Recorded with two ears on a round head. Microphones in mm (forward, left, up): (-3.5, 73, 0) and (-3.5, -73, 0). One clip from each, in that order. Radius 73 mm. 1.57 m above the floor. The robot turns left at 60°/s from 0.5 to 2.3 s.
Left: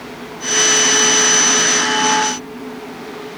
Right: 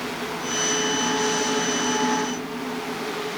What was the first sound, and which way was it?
Only background noise.